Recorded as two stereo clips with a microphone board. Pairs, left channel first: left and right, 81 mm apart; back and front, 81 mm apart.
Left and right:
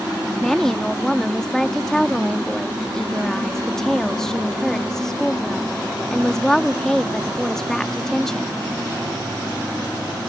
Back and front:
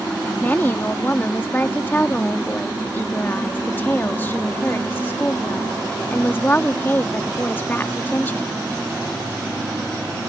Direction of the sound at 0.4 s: 165° left.